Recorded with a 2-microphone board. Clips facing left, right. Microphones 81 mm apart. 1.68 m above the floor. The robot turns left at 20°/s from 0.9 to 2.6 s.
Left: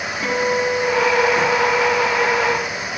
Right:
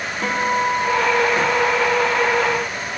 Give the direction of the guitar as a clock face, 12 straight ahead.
3 o'clock.